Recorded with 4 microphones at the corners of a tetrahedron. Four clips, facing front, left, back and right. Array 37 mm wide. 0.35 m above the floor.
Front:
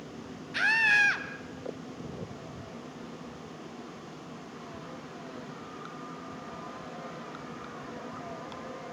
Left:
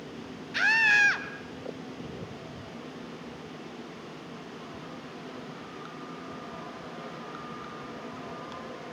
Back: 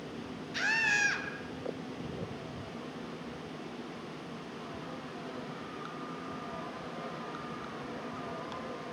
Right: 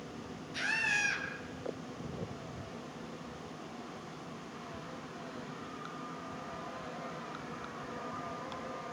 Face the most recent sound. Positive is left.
turn(degrees=65)